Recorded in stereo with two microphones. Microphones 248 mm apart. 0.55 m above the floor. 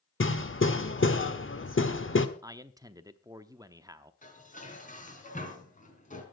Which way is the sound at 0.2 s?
55° left (ahead or behind).